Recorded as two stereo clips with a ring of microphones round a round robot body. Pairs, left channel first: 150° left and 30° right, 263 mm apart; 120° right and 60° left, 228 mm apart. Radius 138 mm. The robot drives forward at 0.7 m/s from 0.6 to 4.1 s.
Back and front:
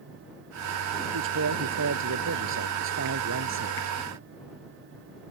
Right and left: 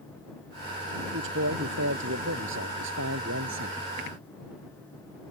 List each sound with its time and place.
1.1 s a man speaking: 10° left; by 3.8 s 15° left